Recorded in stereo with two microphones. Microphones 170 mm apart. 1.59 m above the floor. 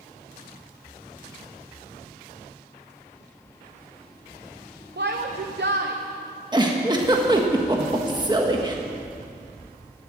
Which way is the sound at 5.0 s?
80° right.